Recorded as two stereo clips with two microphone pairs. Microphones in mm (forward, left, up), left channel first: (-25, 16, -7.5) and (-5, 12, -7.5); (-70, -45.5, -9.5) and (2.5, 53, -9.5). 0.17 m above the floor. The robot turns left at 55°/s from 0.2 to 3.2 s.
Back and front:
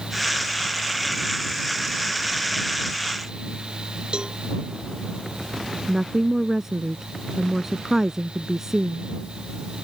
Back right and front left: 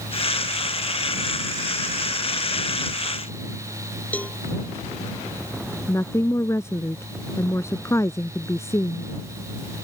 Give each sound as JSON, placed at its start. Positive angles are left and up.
{"t": 4.1, "sound": "a cowbell", "azimuth_deg": -50}
{"t": 5.9, "sound": "a woman speaking", "azimuth_deg": -70}